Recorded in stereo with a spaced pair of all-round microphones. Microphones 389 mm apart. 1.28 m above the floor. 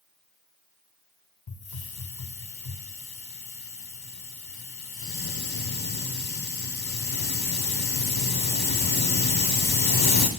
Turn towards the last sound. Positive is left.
turn(degrees=70)  # may be behind; listen again after turning